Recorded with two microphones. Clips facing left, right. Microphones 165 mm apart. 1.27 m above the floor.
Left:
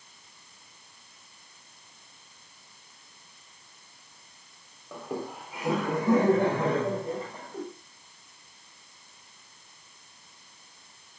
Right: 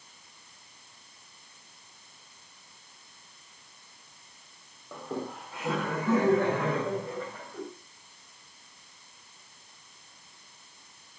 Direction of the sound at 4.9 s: 5° left (ahead or behind).